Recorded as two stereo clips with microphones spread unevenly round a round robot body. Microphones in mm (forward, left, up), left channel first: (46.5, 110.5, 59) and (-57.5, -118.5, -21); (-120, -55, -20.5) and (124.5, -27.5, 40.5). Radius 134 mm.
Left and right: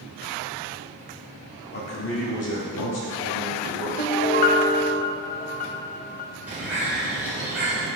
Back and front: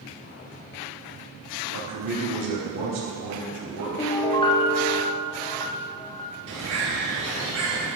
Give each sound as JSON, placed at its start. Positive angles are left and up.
{"t": 1.7, "sound": "a man speaking", "azimuth_deg": 5, "distance_m": 1.3}
{"t": 4.0, "sound": "a piano", "azimuth_deg": 105, "distance_m": 0.6}
{"t": 6.5, "sound": "a bird", "azimuth_deg": -40, "distance_m": 2.5}